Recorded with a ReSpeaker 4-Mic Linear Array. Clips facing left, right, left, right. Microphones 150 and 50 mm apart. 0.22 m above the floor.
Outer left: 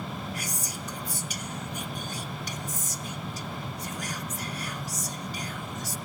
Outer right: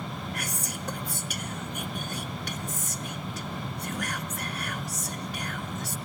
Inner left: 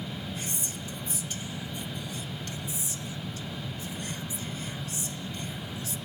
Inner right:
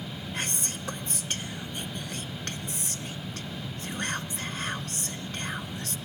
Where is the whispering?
65° right (ahead or behind), 2 m.